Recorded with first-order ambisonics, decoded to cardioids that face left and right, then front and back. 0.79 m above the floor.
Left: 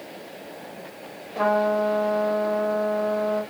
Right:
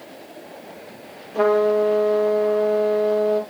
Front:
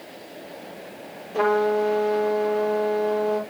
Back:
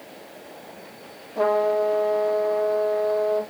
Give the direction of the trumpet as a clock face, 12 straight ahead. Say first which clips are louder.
Right 4 dB, even; 1 o'clock.